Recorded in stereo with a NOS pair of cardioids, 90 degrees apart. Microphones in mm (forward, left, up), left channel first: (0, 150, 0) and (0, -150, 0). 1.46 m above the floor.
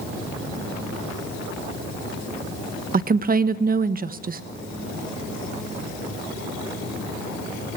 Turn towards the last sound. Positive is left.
turn(degrees=-30)